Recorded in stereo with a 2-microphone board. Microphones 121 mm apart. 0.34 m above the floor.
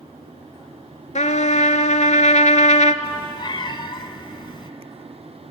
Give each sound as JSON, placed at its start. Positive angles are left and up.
{"t": 1.1, "sound": "a trumpet", "side_deg": 80, "distance_m": 0.9}
{"t": 3.0, "sound": "a cat meowing", "side_deg": 40, "distance_m": 0.7}